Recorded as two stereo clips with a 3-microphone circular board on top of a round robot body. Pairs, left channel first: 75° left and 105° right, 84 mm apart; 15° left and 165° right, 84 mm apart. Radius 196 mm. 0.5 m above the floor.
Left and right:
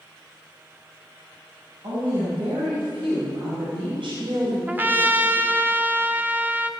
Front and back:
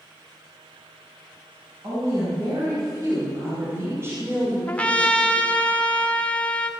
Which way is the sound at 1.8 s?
120° right.